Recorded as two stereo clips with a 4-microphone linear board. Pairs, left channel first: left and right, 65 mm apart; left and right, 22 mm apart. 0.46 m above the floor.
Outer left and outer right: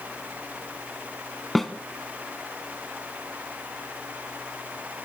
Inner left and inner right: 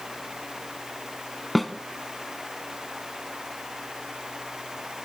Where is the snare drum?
Centre (ahead or behind), 1.1 m.